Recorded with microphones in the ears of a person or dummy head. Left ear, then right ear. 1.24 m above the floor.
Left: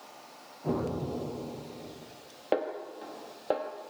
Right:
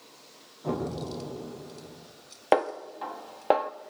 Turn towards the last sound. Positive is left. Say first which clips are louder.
# right 6 dB
turn(degrees=-25)  # may be behind; listen again after turning